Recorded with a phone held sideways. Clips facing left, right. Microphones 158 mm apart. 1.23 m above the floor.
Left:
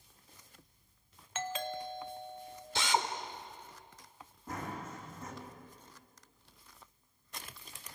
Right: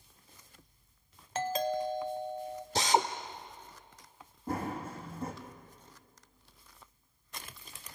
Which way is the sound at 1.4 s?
40° right (ahead or behind).